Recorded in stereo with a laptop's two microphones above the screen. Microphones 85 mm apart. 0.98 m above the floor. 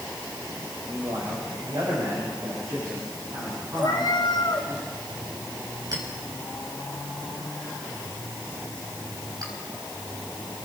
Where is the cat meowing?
65° left (ahead or behind), 2.5 m.